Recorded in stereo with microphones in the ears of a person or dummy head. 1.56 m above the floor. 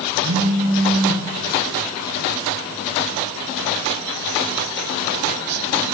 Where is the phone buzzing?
40° right (ahead or behind), 2 m.